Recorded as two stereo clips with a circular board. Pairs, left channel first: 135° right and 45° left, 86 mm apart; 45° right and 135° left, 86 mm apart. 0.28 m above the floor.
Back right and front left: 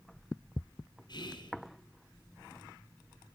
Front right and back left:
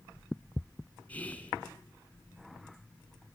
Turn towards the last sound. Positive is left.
turn(degrees=-115)